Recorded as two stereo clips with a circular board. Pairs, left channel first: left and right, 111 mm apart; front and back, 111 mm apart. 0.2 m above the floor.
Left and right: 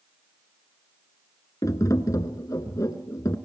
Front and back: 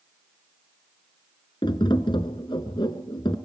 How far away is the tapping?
About 1.6 m.